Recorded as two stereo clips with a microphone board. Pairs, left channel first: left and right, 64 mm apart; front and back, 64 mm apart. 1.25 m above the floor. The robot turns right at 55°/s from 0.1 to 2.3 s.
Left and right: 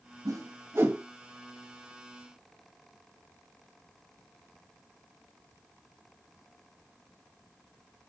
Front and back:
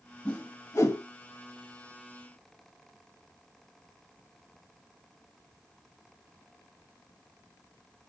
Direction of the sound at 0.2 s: 70° right.